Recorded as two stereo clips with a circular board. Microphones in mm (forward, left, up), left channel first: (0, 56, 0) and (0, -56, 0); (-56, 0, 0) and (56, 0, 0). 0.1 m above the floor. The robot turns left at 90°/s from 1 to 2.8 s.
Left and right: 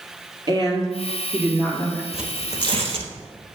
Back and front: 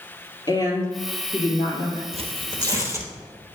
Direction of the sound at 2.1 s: 5° right.